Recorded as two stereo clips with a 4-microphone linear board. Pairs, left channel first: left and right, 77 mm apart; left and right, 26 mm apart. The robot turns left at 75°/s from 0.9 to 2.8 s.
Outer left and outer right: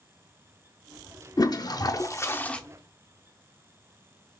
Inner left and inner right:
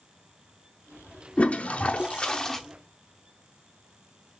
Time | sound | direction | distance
1.4 | a toilet flushing | 105° left | 0.5 m